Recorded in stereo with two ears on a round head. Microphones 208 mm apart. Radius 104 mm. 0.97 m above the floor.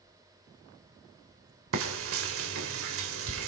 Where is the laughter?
I don't hear laughter.